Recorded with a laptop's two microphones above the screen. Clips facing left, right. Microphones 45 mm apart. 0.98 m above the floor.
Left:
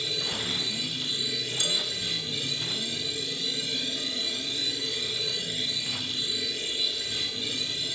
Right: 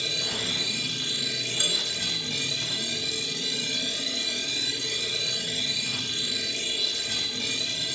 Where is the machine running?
85° right, 5.5 m.